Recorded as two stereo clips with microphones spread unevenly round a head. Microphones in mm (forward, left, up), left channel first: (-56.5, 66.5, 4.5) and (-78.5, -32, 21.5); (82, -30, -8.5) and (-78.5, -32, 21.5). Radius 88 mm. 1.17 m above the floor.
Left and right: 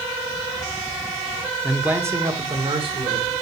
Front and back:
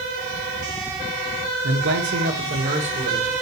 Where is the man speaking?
170° left, 1.5 m; by 3.3 s 125° right, 2.5 m.